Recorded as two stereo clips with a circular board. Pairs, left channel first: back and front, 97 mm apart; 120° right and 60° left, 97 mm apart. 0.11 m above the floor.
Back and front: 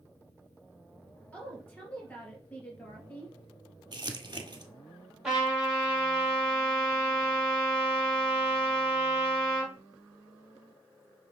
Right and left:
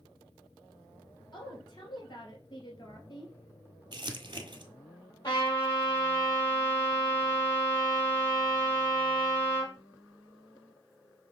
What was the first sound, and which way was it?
A woman speaking, 110° right.